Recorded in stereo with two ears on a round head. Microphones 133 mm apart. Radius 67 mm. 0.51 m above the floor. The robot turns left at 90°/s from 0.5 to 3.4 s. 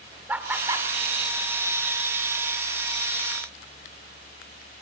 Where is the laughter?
10° right (ahead or behind), 1.9 m; by 0.9 s 35° right (ahead or behind), 1.9 m.